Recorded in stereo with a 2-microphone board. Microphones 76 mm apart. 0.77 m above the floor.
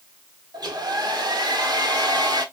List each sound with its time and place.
0.5 s a hair dryer: 75° right (ahead or behind), 1.2 m